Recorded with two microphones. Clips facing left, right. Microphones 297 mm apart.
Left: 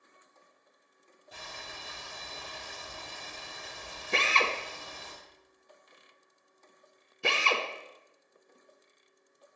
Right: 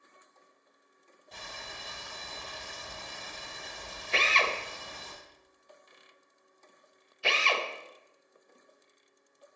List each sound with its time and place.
1.3 s boiling: 5° left (ahead or behind), 3.5 m
4.1 s a drill: 55° left (ahead or behind), 0.9 m